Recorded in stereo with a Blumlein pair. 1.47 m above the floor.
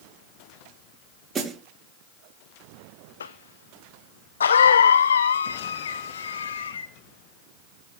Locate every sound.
1.4 s a snare drum: 15° right, 5 m
3.2 s a cough: 70° left, 0.8 m